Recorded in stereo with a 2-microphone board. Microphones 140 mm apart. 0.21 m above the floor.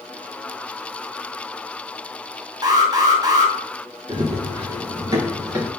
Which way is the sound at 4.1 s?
35° right (ahead or behind).